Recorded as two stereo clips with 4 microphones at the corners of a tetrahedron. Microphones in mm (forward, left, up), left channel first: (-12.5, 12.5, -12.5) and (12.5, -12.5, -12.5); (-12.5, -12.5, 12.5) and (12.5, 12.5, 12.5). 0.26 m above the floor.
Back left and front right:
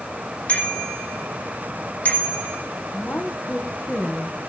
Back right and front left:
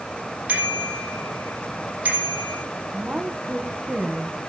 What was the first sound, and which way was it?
A bicycle bell, 95° left.